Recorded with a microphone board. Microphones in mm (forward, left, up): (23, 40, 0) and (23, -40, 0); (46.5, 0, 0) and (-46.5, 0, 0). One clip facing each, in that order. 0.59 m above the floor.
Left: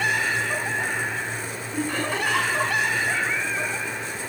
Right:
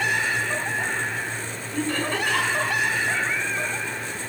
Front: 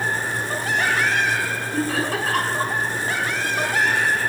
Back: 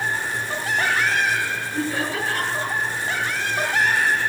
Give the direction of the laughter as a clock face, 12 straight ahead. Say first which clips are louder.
Right 1 dB, front 3 dB; 12 o'clock.